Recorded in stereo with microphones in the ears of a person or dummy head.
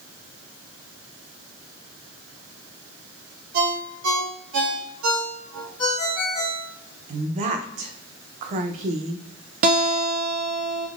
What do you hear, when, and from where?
3.5 s a ringtone: 75° right (ahead or behind), 1.1 m
5.8 s a ringtone: 25° left (ahead or behind), 1.9 m
7.1 s a woman speaking: 40° right (ahead or behind), 0.5 m
9.6 s a guitar: 45° right (ahead or behind), 0.6 m